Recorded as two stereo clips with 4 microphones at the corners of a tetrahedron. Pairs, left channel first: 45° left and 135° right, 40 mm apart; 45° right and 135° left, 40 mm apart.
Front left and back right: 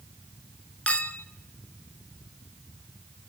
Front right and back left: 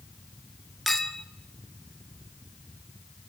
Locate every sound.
0.9 s a clink: 35° left, 0.8 m